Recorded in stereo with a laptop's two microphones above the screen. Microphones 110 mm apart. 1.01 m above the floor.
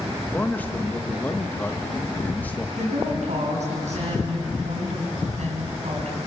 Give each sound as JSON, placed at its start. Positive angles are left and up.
{"t": 0.3, "sound": "a man speaking", "side_deg": 15, "distance_m": 1.2}
{"t": 2.8, "sound": "a woman speaking", "side_deg": -80, "distance_m": 7.0}